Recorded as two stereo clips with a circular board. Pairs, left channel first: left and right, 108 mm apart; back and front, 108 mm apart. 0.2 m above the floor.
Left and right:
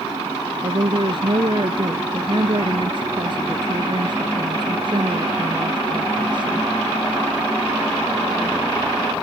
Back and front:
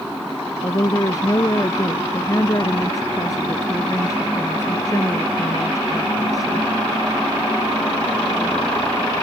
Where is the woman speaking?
125° right.